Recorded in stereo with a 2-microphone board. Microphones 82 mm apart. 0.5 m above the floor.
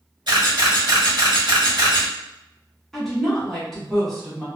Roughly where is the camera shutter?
Right.